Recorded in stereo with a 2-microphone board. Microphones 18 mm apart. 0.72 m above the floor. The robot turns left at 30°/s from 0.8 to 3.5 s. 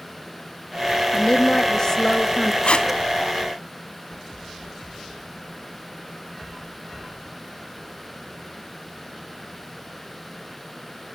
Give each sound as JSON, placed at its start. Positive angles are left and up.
{"t": 1.1, "sound": "a woman speaking", "azimuth_deg": 80, "distance_m": 1.2}
{"t": 2.6, "sound": "tape being pulled", "side_deg": 70, "distance_m": 1.4}